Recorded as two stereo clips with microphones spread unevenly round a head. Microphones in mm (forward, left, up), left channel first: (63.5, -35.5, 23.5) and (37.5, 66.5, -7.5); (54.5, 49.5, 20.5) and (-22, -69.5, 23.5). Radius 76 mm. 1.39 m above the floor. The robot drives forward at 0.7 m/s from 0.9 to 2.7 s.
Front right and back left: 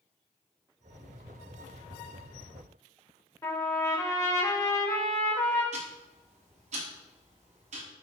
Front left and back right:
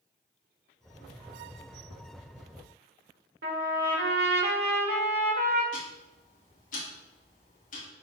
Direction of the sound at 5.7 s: 100° left.